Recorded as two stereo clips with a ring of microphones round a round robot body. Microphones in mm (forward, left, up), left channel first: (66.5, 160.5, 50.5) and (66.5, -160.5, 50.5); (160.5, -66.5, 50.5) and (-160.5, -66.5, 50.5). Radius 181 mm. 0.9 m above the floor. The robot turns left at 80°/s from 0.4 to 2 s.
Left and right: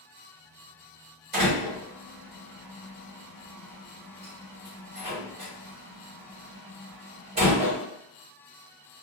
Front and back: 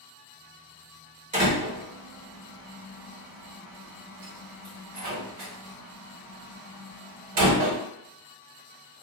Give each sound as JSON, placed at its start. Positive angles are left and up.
{"t": 1.3, "sound": "a door slam", "azimuth_deg": -110, "distance_m": 1.6}